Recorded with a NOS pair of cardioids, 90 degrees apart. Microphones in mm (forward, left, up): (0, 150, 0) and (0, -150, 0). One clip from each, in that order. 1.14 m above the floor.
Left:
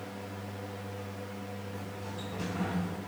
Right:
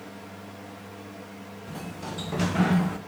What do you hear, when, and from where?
0.0 s a fan: 10° right, 2.0 m
1.7 s a sliding door: 65° right, 0.8 m